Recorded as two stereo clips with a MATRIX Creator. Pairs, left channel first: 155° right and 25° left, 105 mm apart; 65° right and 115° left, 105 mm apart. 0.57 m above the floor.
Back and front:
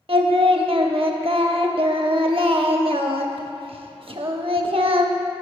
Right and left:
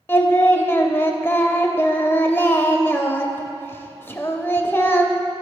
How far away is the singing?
About 0.5 m.